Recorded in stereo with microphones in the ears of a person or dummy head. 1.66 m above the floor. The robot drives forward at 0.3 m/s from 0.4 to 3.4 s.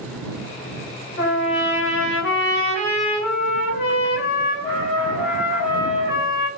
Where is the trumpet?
50° left (ahead or behind), 1.2 m; by 6.5 s 45° left (ahead or behind), 1.3 m.